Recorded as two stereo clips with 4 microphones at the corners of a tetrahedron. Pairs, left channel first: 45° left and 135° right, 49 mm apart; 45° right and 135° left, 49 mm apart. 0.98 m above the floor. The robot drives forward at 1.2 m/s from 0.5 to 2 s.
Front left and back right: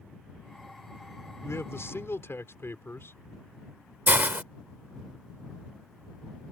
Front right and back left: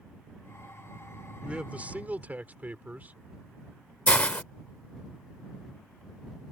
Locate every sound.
1.4 s a man speaking: 65° left; by 3.1 s 75° left
4.1 s a hiss: 100° right